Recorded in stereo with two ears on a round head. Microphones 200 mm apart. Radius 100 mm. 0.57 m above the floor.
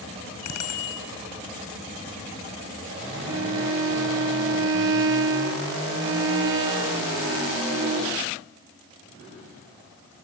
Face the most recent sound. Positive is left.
turn(degrees=-60)  # may be behind; listen again after turning